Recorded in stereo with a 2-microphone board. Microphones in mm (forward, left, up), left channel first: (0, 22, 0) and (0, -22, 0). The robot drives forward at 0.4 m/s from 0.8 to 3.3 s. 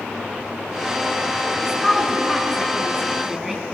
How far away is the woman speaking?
About 3 m.